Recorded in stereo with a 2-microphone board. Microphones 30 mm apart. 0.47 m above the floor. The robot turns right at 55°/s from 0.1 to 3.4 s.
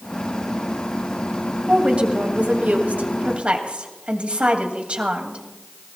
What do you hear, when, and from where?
1.7 s a woman speaking: 150° right, 2.5 m; by 5.4 s 55° right, 2.5 m